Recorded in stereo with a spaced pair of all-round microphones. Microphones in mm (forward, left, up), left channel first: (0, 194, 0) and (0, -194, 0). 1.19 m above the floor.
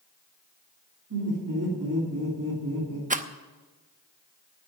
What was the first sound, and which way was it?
Laughter, 50° right (ahead or behind).